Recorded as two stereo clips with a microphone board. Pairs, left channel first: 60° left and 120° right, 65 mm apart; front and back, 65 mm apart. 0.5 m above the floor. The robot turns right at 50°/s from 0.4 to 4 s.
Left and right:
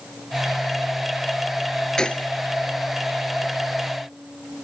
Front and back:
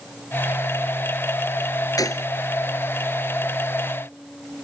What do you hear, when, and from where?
2.0 s a gunshot: 20° right; by 2.3 s 5° right